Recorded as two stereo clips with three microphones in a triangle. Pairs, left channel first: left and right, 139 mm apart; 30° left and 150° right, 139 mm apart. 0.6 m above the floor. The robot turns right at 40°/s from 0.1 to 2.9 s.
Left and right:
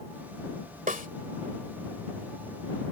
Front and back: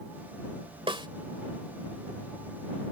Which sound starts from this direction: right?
A snare drum, at 0.9 s.